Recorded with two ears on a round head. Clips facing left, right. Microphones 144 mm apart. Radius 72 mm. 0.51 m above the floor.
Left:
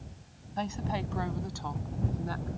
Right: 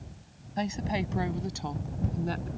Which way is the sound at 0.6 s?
20° right (ahead or behind).